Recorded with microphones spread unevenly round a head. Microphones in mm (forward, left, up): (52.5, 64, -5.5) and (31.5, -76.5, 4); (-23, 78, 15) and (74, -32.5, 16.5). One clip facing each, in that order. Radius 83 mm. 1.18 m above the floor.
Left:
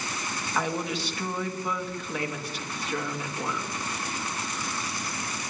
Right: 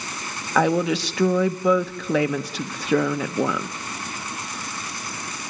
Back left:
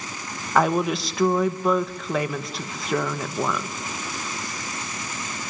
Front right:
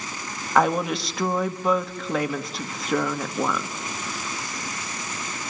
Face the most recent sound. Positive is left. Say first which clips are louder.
# right 10 dB, even
turn(degrees=-140)